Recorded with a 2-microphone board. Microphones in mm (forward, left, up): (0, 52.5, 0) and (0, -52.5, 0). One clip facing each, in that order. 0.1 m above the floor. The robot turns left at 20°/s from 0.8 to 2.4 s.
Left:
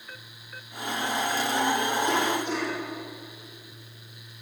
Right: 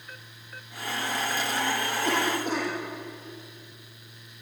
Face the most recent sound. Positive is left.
turn(degrees=-45)  # may be behind; listen again after turning